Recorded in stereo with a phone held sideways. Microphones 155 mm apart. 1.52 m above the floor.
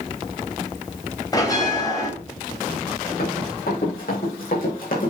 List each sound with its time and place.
1.3 s a bell: 25° left (ahead or behind), 2.5 m
3.2 s running footsteps: 75° left (ahead or behind), 6 m; by 5.1 s 65° left (ahead or behind), 4.5 m